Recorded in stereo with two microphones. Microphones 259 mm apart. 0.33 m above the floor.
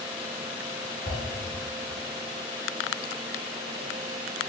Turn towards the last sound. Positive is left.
turn(degrees=-40)  # may be behind; listen again after turning